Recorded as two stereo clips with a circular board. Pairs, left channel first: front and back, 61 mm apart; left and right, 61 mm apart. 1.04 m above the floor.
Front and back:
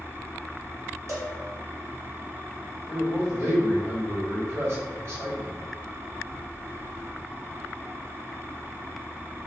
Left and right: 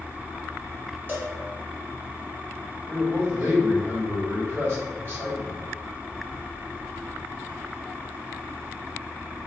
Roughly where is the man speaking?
Behind right.